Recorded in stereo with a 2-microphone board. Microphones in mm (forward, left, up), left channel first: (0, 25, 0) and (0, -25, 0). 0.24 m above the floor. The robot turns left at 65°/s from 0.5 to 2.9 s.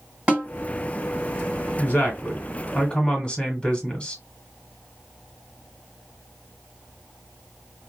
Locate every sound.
0.3 s a snare drum: 25° right (ahead or behind), 1.7 m
1.8 s a woman speaking: 110° left, 1.2 m; by 4.2 s 40° left, 1.2 m